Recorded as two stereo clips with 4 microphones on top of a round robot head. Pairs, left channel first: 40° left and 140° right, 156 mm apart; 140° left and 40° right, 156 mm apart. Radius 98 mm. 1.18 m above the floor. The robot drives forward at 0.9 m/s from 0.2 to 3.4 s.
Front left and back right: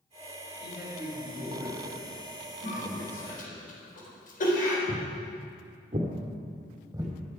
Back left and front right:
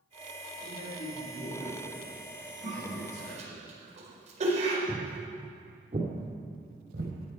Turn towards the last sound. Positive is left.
turn(degrees=-70)